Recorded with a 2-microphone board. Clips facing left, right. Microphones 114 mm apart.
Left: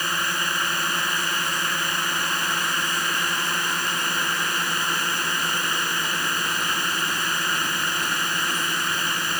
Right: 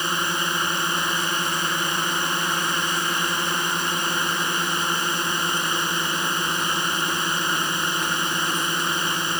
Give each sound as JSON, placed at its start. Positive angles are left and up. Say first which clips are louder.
{"t": 0.0, "sound": "a drone", "louder": "right 2 dB", "side_deg": -20}